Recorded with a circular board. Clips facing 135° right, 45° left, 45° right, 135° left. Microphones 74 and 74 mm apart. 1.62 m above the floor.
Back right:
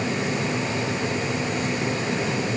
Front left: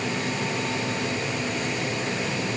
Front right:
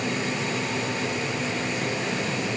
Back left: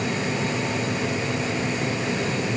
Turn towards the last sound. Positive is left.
No sound to turn to.